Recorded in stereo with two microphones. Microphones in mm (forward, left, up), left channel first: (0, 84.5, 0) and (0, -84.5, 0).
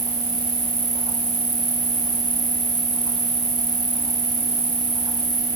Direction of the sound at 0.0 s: 35° right (ahead or behind).